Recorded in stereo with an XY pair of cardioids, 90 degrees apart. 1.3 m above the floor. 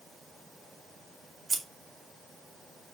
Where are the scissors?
35° right, 3.5 m.